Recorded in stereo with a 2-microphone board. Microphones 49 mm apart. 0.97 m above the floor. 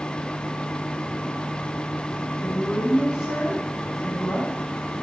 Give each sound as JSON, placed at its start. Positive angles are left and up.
{"t": 2.4, "sound": "a woman speaking", "side_deg": -15, "distance_m": 6.0}